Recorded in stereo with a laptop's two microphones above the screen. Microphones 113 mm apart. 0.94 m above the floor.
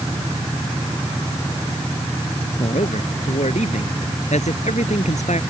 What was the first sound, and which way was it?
A man speaking, 85° left.